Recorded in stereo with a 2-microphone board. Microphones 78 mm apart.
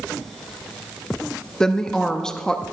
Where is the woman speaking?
10° left (ahead or behind), 0.6 m.